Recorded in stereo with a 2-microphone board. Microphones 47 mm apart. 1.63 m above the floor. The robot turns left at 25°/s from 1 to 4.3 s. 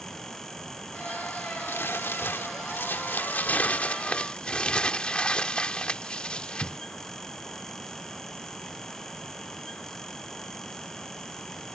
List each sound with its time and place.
1.7 s crumpling: 95° left; by 6.8 s 25° left